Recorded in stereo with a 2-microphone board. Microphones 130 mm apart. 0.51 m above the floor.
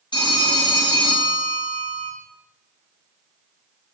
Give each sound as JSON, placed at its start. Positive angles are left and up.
{"t": 0.1, "sound": "a phone ringing", "side_deg": 35, "distance_m": 0.6}